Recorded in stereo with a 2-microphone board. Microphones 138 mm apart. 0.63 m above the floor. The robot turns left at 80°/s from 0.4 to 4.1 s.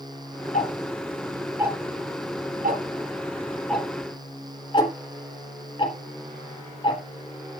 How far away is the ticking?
About 3.5 m.